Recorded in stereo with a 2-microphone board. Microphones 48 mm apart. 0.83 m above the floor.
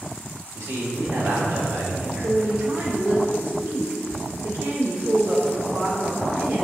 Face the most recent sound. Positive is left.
turn(degrees=-65)  # may be behind; listen again after turning